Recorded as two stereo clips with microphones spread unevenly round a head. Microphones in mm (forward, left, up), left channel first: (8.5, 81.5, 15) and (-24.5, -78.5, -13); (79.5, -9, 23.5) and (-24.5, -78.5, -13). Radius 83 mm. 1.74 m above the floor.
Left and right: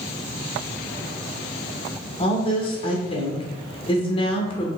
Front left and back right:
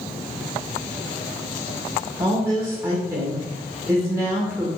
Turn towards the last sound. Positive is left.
turn(degrees=135)